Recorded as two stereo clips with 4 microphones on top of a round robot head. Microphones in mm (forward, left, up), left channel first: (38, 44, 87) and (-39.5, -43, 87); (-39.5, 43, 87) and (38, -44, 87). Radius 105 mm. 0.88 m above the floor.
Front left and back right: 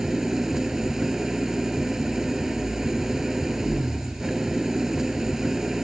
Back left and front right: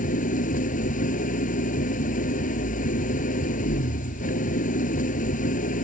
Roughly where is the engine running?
Behind left.